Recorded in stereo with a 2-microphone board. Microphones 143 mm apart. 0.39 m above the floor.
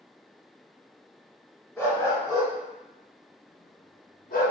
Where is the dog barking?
15° left (ahead or behind), 1.1 m; by 4.5 s 60° left (ahead or behind), 0.6 m.